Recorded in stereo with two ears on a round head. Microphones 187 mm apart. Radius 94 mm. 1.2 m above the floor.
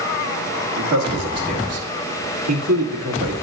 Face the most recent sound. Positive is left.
turn(degrees=-80)